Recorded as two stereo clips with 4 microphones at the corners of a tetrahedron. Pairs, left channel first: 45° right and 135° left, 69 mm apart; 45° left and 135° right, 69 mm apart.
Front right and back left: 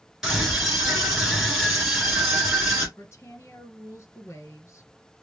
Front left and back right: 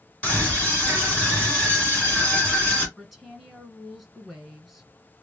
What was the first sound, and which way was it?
A scream, 60° left.